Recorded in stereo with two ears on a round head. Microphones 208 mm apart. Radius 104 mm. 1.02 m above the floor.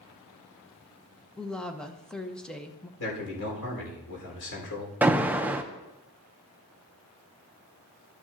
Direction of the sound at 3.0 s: 70° left (ahead or behind).